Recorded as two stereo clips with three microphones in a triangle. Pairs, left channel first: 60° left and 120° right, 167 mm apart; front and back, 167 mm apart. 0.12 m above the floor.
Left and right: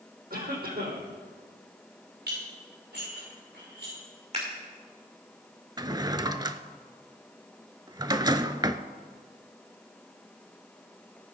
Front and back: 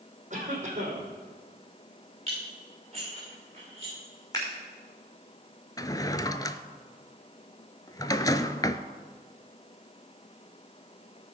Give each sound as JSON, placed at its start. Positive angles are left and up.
{"t": 0.3, "sound": "a cough", "azimuth_deg": -140, "distance_m": 4.5}
{"t": 2.3, "sound": "dishes clattering", "azimuth_deg": -125, "distance_m": 6.5}
{"t": 4.3, "sound": "scissors", "azimuth_deg": -70, "distance_m": 5.5}
{"t": 5.8, "sound": "a drawer", "azimuth_deg": -60, "distance_m": 0.5}